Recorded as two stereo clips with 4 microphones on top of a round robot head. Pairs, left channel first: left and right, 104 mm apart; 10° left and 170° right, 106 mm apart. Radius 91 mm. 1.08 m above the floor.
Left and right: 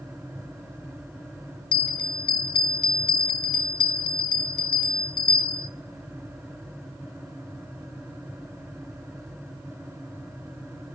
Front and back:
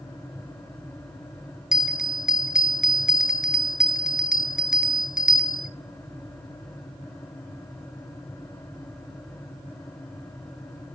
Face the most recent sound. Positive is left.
turn(degrees=105)